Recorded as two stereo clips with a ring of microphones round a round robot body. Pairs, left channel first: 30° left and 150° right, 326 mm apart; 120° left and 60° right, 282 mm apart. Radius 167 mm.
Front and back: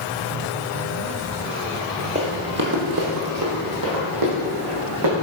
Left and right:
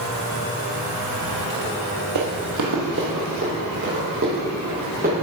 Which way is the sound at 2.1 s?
80° right.